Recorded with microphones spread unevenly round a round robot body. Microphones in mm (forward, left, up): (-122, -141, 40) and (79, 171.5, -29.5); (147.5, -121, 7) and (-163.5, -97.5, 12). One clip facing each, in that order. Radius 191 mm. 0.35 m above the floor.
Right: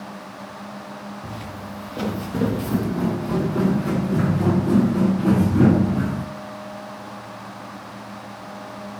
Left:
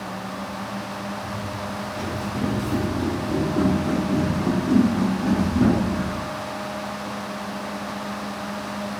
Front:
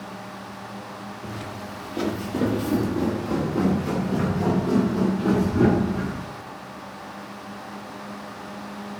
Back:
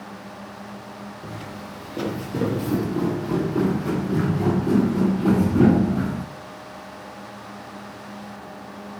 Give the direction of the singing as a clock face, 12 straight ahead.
I don't hear singing.